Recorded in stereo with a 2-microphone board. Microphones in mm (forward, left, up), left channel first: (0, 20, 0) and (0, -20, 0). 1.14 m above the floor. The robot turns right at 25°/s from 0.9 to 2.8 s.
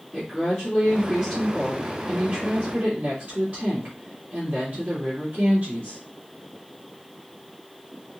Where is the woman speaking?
165° left, 2.5 m; by 6.0 s 145° right, 2.5 m.